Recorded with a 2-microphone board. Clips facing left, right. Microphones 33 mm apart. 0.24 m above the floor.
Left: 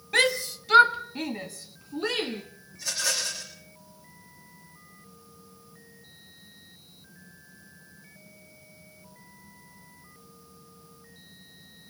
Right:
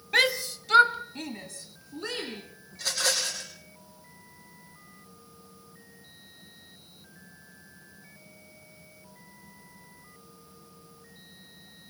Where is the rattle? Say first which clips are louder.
Right 2 dB; 60° right (ahead or behind), 6.5 m.